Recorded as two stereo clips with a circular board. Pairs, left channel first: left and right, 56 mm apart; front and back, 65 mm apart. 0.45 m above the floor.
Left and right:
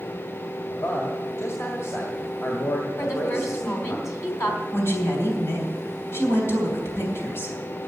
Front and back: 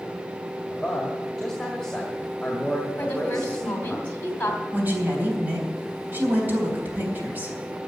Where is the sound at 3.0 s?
60° left, 2.5 m.